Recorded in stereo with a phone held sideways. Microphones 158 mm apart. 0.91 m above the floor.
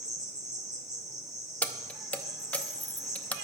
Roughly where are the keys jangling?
Centre.